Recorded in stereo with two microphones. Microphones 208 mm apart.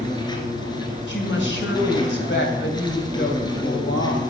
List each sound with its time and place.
0.0 s an insect: 20° left (ahead or behind), 1.7 m
1.1 s a woman speaking: 60° left (ahead or behind), 2.5 m